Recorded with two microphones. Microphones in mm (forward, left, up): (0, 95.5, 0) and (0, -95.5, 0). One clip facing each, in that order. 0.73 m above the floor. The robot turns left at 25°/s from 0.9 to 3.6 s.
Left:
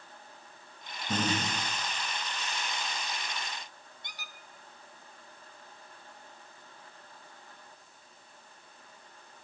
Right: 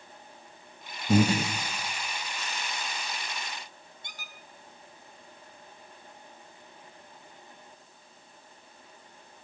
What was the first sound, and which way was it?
Breathing, 40° right (ahead or behind).